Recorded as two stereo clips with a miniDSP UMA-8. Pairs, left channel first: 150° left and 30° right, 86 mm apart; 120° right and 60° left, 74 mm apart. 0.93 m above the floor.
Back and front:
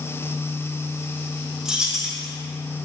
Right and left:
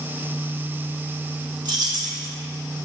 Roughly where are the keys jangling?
Ahead left.